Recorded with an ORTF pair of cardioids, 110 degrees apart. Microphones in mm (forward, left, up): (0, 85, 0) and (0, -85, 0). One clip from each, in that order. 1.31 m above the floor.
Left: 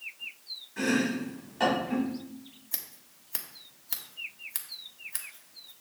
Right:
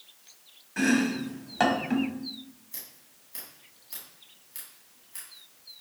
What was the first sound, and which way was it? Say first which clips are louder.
Chopping: right 3 dB; 55° right.